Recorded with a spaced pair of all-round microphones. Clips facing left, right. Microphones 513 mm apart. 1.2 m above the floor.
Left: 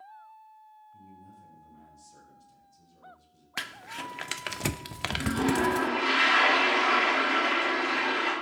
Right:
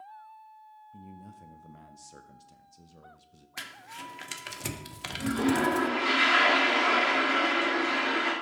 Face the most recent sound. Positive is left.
turn(degrees=10)  # may be behind; listen again after turning